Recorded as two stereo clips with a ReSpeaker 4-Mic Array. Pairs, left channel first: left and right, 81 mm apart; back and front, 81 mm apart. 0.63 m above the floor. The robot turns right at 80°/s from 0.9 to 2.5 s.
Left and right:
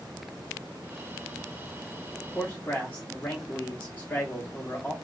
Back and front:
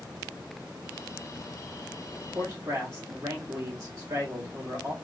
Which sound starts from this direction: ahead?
A man speaking, at 2.4 s.